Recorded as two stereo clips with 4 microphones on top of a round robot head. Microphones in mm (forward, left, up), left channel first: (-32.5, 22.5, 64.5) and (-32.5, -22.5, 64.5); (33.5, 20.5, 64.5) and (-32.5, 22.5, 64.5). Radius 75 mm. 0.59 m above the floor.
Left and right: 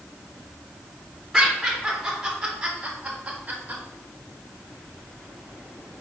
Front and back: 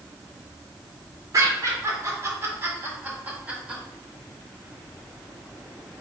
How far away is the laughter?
About 1.8 m.